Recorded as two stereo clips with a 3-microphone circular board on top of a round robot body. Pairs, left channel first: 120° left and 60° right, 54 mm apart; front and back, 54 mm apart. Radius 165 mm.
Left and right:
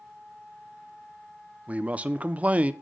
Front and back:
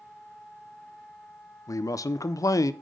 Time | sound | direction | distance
1.7 | a man speaking | 5° left | 0.5 m